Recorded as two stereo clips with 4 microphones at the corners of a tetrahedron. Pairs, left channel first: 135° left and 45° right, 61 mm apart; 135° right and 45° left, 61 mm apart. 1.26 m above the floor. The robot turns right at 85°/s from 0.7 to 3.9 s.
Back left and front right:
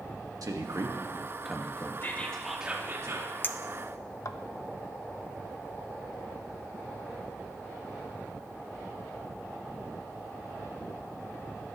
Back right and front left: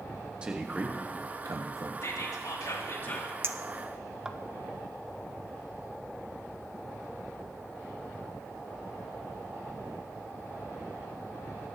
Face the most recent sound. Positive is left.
turn(degrees=120)